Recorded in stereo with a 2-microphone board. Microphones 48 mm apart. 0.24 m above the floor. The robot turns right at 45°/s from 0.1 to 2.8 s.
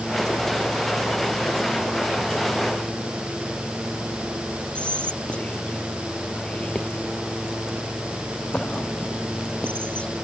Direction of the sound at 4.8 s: 20° left (ahead or behind).